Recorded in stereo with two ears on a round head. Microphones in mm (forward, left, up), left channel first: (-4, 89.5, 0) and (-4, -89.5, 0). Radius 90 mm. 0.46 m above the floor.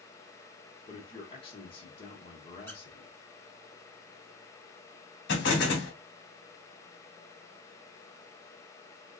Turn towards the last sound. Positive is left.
turn(degrees=60)  # may be behind; listen again after turning